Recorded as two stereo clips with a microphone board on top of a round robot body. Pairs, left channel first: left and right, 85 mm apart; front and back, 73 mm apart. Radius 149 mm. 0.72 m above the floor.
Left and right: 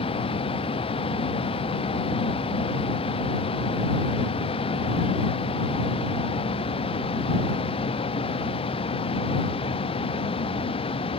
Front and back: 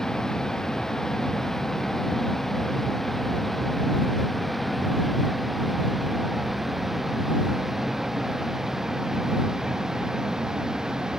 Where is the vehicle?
80° left; by 11.2 s 95° left.